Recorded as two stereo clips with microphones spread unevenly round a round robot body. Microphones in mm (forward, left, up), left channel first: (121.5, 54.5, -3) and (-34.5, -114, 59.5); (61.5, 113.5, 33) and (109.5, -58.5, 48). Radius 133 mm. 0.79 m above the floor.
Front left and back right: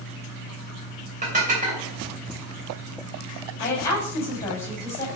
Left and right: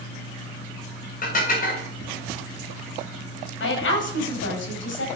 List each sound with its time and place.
1.2 s dishes clattering: 165° left, 3 m
3.6 s a woman speaking: 125° left, 5 m